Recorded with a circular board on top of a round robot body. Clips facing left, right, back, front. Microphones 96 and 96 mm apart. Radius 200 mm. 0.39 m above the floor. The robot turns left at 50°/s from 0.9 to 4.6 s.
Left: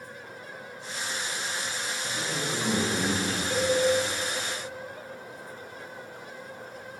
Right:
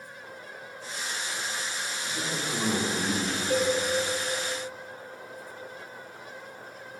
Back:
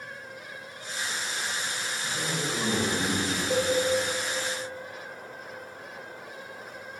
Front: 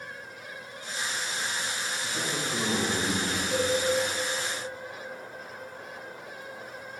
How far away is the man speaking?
About 2 m.